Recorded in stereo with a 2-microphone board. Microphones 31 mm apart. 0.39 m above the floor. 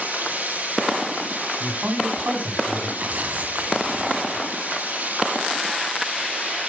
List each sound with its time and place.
0.0 s running water: 70° right (ahead or behind), 9 m
1.6 s a man speaking: 65° right (ahead or behind), 3.5 m
3.0 s tearing paper: 60° right (ahead or behind), 1.5 m